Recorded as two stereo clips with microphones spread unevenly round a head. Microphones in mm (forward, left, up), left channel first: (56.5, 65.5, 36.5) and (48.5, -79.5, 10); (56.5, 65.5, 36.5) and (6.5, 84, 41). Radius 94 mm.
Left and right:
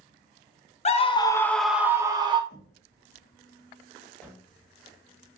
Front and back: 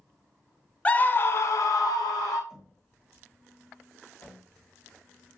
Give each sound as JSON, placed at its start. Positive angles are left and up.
{"t": 0.8, "sound": "a scream", "azimuth_deg": 50, "distance_m": 0.6}
{"t": 2.5, "sound": "knocking", "azimuth_deg": 80, "distance_m": 1.1}
{"t": 4.2, "sound": "a cupboard door", "azimuth_deg": 10, "distance_m": 1.7}